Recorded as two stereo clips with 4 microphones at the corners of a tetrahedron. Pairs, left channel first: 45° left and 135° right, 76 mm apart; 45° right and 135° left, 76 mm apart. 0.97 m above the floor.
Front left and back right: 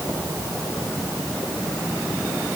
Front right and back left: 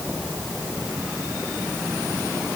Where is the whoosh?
No whoosh in this recording.